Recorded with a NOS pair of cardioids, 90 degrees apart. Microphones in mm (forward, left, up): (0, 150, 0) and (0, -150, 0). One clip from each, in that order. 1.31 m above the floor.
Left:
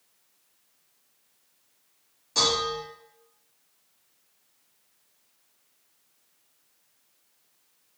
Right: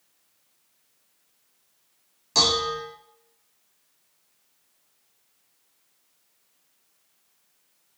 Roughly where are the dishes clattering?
Ahead right.